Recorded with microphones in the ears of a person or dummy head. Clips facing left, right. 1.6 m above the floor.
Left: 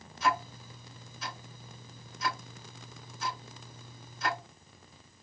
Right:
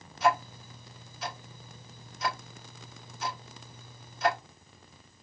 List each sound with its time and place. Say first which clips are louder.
0.2 s ticking: right 4 dB; 60° right (ahead or behind), 3 m